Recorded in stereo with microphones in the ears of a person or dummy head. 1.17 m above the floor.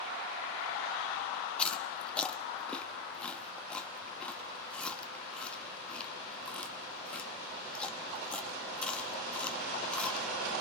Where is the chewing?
15° left (ahead or behind), 1.1 m.